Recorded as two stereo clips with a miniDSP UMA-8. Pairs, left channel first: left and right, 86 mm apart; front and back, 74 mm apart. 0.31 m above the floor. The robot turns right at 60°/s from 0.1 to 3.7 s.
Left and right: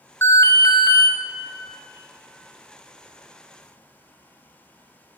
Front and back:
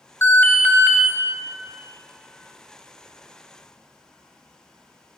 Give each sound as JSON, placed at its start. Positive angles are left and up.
{"t": 0.2, "sound": "an alarm", "azimuth_deg": 40, "distance_m": 1.1}